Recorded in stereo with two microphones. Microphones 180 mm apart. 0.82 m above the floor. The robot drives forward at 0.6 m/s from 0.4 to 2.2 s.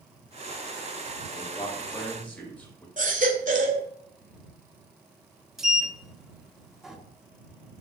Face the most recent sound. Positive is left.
turn(degrees=0)  # may be behind; listen again after turning